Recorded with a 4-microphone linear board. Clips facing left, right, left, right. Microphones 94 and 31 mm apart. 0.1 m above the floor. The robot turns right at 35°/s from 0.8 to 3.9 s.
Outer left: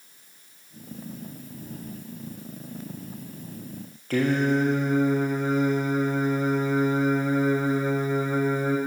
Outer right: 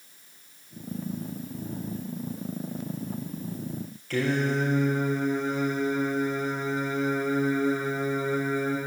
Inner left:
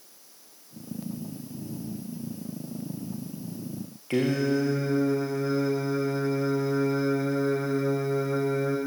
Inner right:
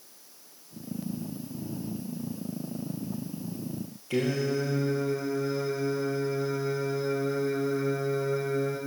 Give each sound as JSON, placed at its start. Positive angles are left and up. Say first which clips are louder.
{"t": 4.1, "sound": "singing", "louder": "outer left 4 dB, inner left 3 dB", "side_deg": 45, "distance_m": 5.0}